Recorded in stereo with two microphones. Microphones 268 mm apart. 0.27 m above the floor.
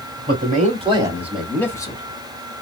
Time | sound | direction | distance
0.3 | a man speaking | 35° right (ahead or behind) | 1.7 m